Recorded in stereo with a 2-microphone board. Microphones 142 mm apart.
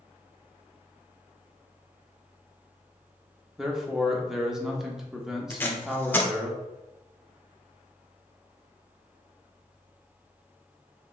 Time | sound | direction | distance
3.6 | a man speaking | 5° right (ahead or behind) | 0.7 m
5.5 | tape being pulled | 15° left (ahead or behind) | 0.6 m